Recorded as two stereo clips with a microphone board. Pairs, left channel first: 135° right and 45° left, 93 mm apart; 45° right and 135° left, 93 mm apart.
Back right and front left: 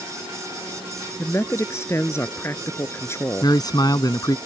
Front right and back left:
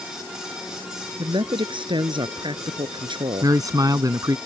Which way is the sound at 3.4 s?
175° right.